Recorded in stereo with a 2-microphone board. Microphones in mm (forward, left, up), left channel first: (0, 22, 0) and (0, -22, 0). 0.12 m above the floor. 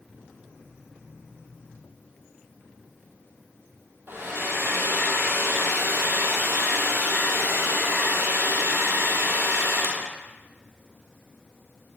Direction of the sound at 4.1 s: 65° right (ahead or behind).